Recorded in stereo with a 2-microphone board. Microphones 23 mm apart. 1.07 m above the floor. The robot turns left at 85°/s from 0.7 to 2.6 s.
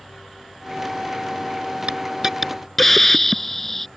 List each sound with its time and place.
1.9 s a hiss: 125° right; by 3.9 s 170° left